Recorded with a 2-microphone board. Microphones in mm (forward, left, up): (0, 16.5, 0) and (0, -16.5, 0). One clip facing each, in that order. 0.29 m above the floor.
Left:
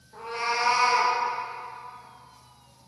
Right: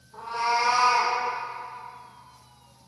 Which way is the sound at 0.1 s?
65° left (ahead or behind).